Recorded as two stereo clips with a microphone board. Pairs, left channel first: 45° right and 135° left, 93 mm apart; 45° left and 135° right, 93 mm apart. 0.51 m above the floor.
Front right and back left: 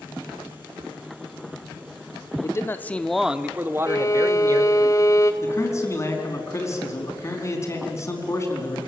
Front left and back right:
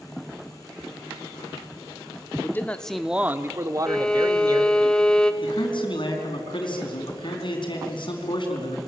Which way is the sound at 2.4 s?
10° right.